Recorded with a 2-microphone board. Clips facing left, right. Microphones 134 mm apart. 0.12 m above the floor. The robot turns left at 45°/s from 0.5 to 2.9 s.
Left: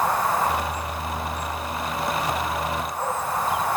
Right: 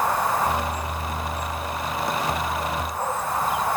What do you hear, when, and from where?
Only background noise.